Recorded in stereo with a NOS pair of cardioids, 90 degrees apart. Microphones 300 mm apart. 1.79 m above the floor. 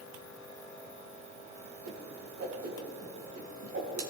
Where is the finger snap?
No finger snap in this recording.